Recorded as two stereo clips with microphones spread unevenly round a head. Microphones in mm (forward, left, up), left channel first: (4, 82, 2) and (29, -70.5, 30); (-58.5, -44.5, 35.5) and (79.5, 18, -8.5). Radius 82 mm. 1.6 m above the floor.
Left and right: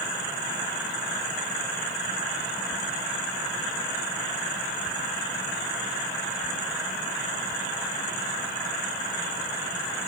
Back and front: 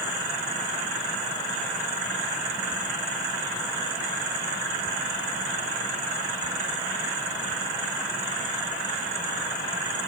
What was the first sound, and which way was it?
Only background noise.